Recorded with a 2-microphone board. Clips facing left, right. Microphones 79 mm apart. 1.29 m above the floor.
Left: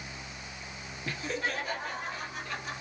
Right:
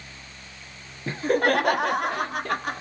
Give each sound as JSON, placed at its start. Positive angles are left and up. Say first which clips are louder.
{"t": 1.1, "sound": "laughter", "louder": "right 12 dB", "side_deg": -25, "distance_m": 0.8}